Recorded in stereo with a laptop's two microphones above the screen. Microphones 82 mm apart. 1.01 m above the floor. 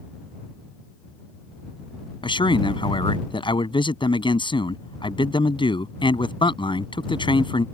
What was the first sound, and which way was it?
A man speaking, 85° left.